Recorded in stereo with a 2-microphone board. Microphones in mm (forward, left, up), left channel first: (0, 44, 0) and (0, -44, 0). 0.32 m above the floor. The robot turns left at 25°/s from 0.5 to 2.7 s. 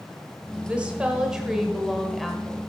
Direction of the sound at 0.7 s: 15° right (ahead or behind).